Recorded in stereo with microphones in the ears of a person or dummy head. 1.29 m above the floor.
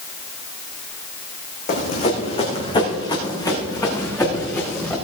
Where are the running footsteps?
50° left (ahead or behind), 3.5 m; by 4.9 s 15° left (ahead or behind), 5.5 m.